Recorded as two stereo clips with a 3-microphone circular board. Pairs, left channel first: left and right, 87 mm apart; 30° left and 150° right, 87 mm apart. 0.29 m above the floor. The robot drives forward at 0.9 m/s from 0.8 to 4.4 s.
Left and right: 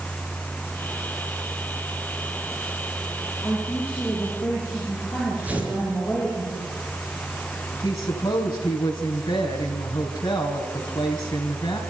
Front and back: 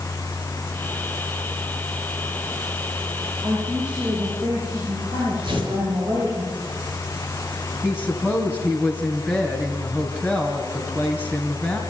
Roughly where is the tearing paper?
Behind.